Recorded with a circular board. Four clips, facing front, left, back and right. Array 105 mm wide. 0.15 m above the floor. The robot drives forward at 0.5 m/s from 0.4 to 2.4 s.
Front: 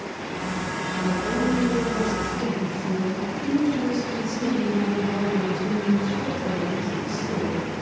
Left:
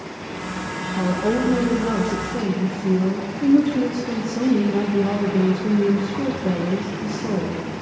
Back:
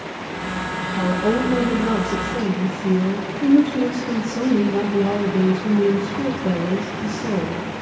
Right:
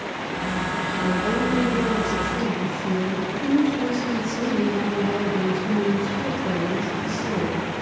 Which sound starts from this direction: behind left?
A woman speaking, at 1.0 s.